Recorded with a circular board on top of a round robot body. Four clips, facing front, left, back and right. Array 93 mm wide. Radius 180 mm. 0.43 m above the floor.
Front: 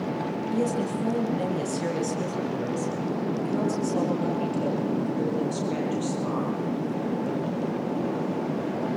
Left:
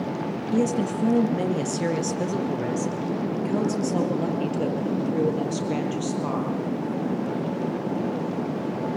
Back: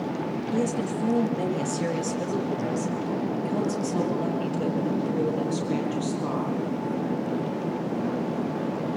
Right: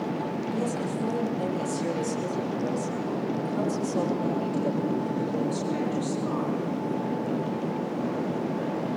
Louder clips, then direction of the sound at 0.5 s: Left 9 dB, even; 80° left.